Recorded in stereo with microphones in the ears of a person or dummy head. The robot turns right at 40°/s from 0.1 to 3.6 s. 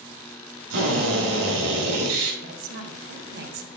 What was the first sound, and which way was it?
A drill, 115° right.